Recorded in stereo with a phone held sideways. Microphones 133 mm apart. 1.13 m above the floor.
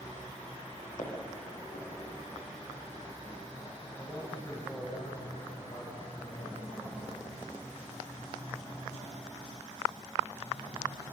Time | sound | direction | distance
1.0 | footsteps | 80° left | 6.5 m
4.0 | a man speaking | 35° left (ahead or behind) | 7 m